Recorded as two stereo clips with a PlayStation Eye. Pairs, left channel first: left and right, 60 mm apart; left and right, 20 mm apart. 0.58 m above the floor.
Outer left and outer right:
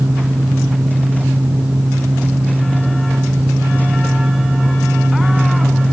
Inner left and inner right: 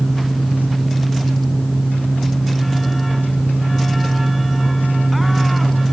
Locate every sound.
Only background noise.